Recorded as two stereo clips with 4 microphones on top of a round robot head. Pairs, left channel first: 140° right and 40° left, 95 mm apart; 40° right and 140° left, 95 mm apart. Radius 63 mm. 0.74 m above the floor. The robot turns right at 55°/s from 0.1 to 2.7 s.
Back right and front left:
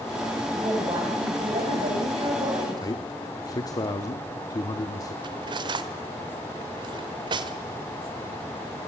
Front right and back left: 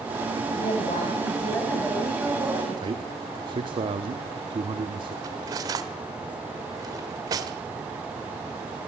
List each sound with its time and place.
0.5 s a woman speaking: 30° right, 5 m; by 3.1 s 90° left, 5 m
2.8 s a man speaking: 170° left, 1.4 m
5.2 s cutlery clinking: 85° left, 1.6 m